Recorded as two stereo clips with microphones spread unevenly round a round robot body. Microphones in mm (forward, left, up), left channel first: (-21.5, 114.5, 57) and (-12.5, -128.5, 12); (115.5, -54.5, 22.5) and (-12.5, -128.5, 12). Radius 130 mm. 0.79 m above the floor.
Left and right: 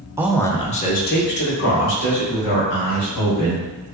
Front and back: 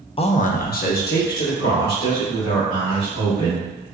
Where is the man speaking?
20° right, 0.5 m; by 3.8 s 55° left, 3 m.